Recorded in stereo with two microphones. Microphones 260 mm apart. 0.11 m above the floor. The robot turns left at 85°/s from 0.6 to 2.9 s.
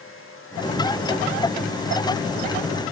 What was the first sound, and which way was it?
Only background noise.